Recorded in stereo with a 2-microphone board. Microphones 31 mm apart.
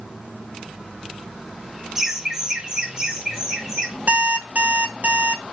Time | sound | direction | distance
1.9 | laughter | 10° right (ahead or behind) | 0.8 m
4.1 | an alarm clock | 55° right (ahead or behind) | 1.2 m